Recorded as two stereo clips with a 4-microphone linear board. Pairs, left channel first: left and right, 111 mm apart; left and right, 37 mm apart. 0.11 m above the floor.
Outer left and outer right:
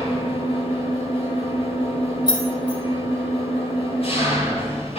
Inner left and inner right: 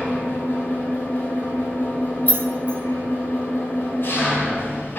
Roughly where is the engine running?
Left.